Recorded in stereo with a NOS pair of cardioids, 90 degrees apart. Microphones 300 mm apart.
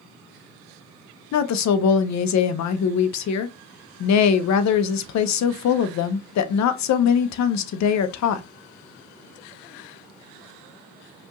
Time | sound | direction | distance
1.3 | a woman speaking | 65° left | 0.7 m